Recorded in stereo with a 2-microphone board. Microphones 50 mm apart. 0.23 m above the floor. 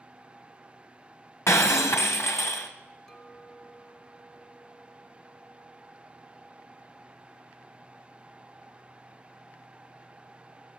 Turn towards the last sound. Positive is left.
turn(degrees=15)  # may be behind; listen again after turning